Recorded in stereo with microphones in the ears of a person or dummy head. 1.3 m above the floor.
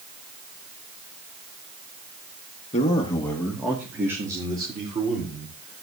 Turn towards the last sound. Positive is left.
turn(degrees=-35)  # may be behind; listen again after turning